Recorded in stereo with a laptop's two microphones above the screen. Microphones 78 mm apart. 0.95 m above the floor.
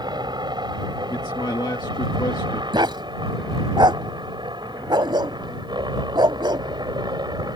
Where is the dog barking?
75° right (ahead or behind).